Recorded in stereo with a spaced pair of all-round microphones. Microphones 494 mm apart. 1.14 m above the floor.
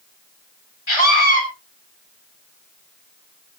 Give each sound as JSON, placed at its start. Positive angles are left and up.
{"t": 0.9, "sound": "a scream", "side_deg": 65, "distance_m": 3.5}